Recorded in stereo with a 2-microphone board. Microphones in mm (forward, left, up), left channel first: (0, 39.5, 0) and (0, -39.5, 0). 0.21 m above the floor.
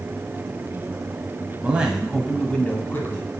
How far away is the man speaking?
About 1.1 m.